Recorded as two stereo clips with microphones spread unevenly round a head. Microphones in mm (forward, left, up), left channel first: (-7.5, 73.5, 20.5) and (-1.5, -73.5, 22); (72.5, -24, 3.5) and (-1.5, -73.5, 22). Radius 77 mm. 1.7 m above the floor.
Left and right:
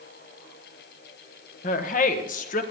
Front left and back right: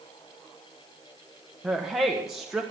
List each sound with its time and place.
1.6 s a woman speaking: 130° left, 1.4 m